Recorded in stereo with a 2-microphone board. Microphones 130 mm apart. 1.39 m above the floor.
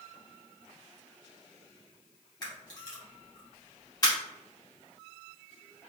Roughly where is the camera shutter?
Left.